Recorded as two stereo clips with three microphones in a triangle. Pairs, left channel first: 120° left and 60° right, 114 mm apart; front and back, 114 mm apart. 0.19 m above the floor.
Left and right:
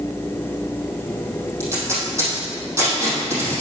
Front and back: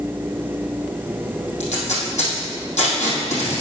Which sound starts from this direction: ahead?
Tape being pulled, at 1.6 s.